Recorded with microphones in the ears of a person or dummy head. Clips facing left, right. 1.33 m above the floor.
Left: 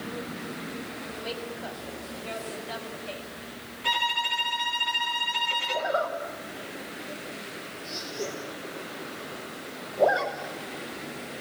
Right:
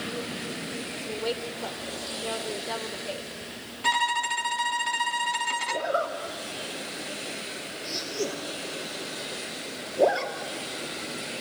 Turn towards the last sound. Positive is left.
turn(degrees=-40)  # may be behind; listen again after turning